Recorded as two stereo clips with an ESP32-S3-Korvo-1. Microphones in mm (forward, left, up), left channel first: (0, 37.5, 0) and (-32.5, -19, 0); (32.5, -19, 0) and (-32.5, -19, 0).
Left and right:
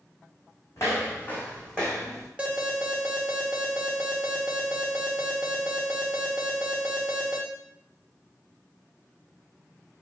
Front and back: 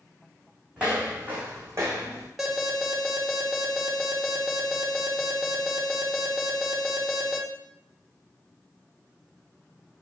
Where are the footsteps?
105° left, 1.7 m; by 2.3 s 150° left, 1.7 m.